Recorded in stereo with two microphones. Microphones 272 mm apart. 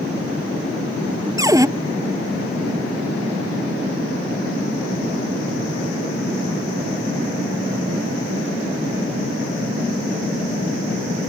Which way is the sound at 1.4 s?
15° right (ahead or behind).